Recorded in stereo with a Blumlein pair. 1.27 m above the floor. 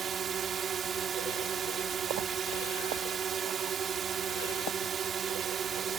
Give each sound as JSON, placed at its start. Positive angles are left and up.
{"t": 0.0, "sound": "a drone", "azimuth_deg": -20}